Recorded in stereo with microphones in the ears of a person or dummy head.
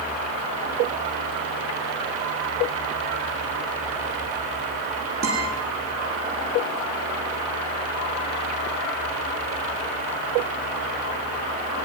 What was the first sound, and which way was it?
A guitar, 60° right (ahead or behind).